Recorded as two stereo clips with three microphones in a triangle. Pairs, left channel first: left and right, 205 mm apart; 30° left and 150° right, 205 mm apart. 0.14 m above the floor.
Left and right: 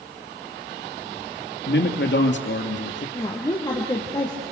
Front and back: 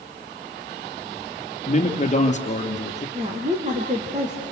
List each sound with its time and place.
1.7 s a man speaking: 80° left, 3 m
3.1 s a woman speaking: 160° left, 4 m